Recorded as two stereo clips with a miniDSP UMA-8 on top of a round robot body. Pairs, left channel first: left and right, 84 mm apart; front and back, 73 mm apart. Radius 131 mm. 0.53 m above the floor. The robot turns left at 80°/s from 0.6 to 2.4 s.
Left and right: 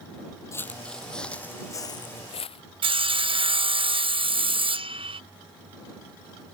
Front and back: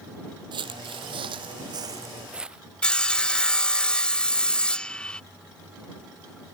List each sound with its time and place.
0.5 s footsteps: 145° left; by 2.6 s 100° left
2.8 s sawing: 80° right